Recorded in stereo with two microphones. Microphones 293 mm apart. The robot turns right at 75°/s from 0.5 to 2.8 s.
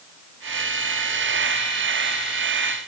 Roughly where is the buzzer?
No buzzer in this recording.